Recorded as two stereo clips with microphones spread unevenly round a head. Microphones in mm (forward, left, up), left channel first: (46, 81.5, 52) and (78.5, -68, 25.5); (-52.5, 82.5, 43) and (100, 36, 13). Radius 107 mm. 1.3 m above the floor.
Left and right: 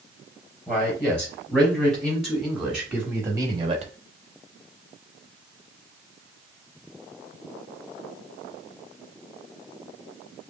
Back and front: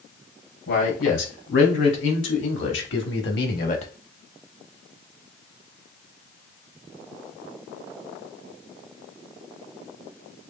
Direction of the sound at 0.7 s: 175° right.